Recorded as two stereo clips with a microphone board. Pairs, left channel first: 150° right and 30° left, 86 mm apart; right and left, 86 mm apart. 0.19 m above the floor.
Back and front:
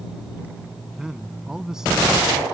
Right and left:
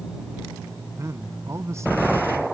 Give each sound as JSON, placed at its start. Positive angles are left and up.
{"t": 1.0, "sound": "a man speaking", "azimuth_deg": 110}